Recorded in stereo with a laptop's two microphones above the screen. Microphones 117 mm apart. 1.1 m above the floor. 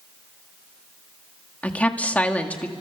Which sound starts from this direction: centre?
A woman speaking, at 1.6 s.